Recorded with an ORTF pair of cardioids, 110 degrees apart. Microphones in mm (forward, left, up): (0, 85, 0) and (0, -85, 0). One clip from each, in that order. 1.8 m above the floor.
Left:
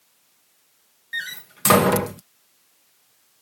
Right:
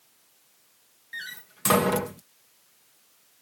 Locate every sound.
1.1 s a door slam: 35° left